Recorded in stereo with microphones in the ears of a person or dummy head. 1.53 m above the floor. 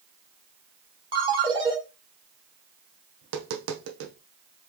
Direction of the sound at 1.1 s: 30° right (ahead or behind).